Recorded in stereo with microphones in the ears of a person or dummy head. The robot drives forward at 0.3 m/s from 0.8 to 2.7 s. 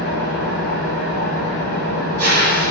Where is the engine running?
55° right (ahead or behind), 1.4 m; by 2.7 s 50° right (ahead or behind), 1.5 m.